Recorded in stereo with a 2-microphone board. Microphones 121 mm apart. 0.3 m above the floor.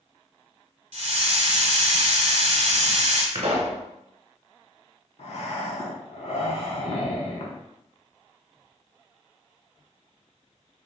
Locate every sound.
0.9 s a hiss: 65° right (ahead or behind), 1.0 m
3.4 s a pop: 60° right (ahead or behind), 0.9 m
5.2 s breathing: 55° left (ahead or behind), 0.7 m